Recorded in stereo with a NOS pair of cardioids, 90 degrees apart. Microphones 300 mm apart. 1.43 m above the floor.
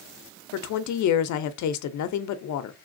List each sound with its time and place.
0.5 s a woman speaking: 70° left, 0.7 m